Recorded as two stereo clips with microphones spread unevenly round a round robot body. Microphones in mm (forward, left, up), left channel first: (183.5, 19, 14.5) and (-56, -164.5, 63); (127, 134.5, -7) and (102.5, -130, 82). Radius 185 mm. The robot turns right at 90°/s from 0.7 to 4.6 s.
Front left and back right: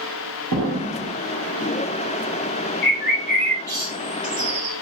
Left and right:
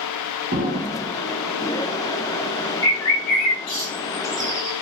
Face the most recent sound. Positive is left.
turn(degrees=-160)